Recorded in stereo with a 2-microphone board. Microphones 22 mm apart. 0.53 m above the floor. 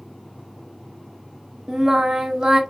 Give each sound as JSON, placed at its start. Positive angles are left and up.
{"t": 1.7, "sound": "singing", "side_deg": -30, "distance_m": 0.6}